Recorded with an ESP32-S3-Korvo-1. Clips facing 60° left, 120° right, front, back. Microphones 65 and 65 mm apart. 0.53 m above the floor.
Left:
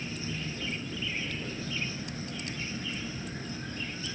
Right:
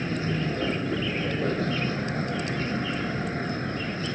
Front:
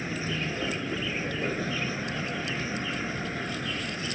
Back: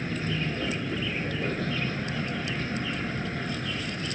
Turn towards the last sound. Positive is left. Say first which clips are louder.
# right 9 dB, back 1 dB
turn(degrees=-80)